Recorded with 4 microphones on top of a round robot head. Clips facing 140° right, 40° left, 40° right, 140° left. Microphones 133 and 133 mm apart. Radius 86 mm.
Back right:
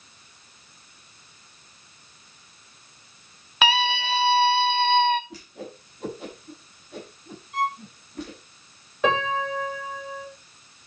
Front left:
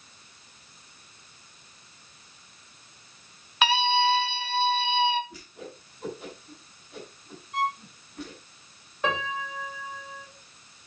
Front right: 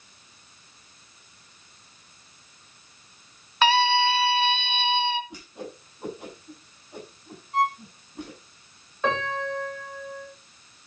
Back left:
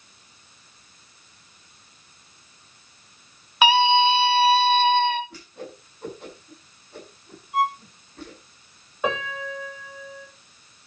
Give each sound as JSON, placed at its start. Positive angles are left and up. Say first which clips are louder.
{"t": 3.6, "sound": "a scream", "louder": "front left 1 dB, back left 3 dB", "azimuth_deg": -145, "distance_m": 1.7}
{"t": 5.3, "sound": "a whoosh", "louder": "back right 4 dB, even", "azimuth_deg": -115, "distance_m": 7.0}
{"t": 7.5, "sound": "a violin", "louder": "back right 2 dB, back left 1 dB", "azimuth_deg": -145, "distance_m": 7.5}
{"t": 9.0, "sound": "a piano", "louder": "back right 6 dB, front right 1 dB", "azimuth_deg": -140, "distance_m": 7.0}